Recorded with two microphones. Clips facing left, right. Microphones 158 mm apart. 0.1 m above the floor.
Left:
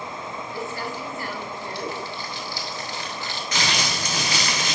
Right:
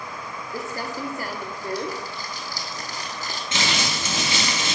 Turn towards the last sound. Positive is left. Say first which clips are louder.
# even
turn(degrees=-25)  # may be behind; listen again after turning